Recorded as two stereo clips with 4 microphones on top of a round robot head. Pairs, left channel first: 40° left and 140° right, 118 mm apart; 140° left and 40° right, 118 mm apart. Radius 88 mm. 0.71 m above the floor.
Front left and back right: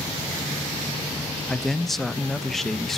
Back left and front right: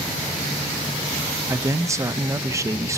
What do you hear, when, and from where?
1.5 s a man speaking: 45° right, 0.7 m